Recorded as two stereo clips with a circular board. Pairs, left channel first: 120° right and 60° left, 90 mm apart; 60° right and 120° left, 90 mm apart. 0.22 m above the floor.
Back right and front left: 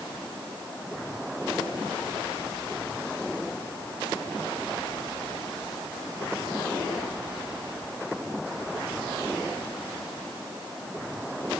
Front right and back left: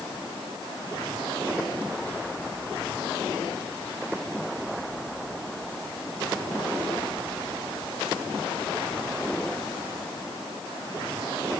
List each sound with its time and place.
Only background noise.